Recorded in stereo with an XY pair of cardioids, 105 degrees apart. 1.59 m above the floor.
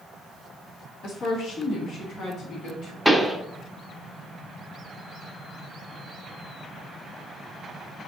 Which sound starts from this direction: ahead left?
A woman speaking, at 1.0 s.